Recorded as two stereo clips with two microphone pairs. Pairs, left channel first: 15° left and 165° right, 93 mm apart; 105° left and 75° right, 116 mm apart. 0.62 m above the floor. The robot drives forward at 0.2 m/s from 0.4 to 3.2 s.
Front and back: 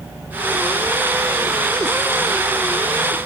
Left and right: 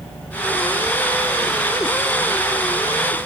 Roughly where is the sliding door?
No sliding door in this recording.